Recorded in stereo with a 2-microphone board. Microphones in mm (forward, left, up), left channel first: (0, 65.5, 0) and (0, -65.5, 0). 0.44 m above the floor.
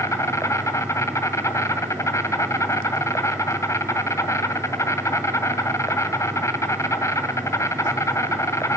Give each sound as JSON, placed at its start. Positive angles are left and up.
{"t": 0.0, "sound": "an insect", "side_deg": 25, "distance_m": 2.0}